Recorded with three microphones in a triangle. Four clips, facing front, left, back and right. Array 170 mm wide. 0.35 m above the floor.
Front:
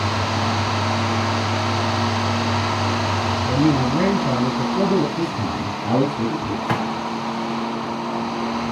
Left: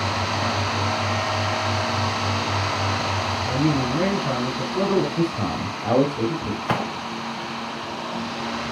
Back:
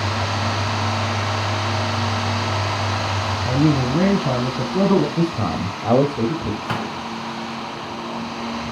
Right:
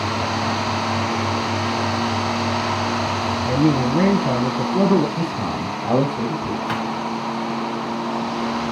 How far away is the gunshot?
About 1.8 m.